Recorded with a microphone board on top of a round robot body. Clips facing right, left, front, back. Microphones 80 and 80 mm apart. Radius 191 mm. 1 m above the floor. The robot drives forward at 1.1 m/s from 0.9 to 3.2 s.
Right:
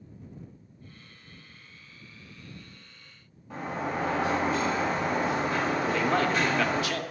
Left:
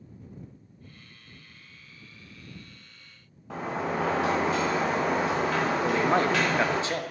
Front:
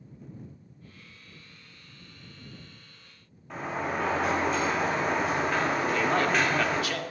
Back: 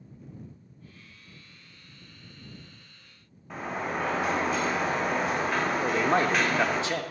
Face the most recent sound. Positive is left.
turn(degrees=135)